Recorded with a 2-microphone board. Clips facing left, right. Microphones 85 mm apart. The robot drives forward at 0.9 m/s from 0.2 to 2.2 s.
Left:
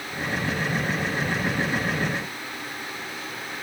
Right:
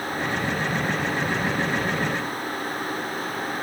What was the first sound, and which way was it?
Only background noise.